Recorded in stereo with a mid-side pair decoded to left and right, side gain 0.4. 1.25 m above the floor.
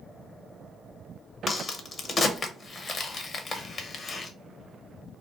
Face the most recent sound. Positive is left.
turn(degrees=50)